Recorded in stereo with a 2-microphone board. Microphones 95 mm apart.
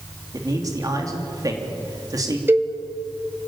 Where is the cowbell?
25° right (ahead or behind), 2 m.